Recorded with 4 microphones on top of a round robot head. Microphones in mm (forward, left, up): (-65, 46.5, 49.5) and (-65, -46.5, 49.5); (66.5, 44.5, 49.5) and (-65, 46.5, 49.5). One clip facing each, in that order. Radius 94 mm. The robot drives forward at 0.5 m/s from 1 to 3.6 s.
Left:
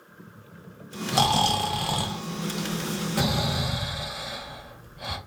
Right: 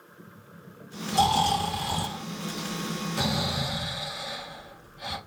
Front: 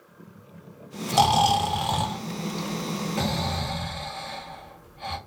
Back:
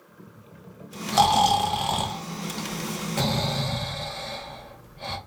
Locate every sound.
1.1 s snoring: 75° left, 1.1 m; by 5.2 s 130° left, 1.4 m